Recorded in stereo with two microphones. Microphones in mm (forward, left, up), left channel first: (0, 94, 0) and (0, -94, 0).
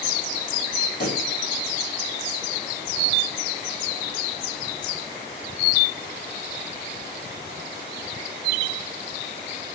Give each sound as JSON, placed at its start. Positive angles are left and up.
{"t": 1.0, "sound": "a pop", "side_deg": 50, "distance_m": 3.0}